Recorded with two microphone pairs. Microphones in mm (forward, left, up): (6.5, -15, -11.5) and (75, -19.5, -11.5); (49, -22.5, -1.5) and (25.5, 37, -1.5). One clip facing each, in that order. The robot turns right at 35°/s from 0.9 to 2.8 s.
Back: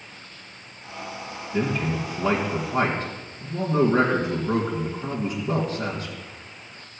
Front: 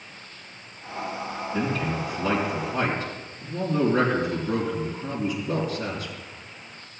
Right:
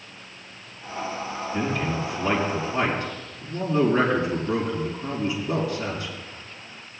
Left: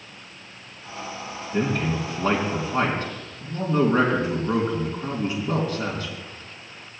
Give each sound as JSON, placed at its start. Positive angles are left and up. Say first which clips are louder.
{"t": 1.5, "sound": "a man speaking", "louder": "back 3 dB, left 3 dB", "azimuth_deg": 105, "distance_m": 2.5}